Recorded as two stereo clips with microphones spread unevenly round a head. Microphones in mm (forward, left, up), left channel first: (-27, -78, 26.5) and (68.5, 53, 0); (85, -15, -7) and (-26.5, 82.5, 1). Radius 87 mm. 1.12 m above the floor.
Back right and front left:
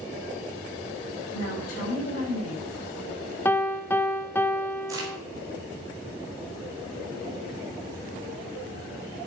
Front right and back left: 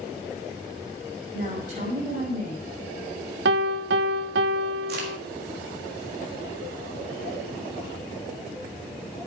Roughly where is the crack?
Behind left.